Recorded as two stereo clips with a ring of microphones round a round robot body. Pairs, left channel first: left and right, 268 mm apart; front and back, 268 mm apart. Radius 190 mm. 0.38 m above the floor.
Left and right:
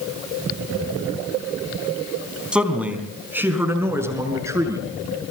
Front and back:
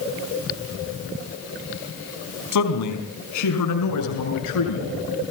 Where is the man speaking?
5° right, 4 m; by 4.8 s 10° right, 6.5 m.